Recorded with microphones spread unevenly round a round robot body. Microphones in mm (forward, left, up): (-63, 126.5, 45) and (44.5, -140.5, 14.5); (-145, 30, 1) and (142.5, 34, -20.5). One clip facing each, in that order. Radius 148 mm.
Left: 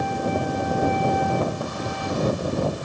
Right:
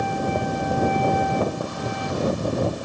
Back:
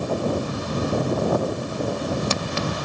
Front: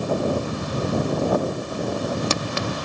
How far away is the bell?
No bell in this recording.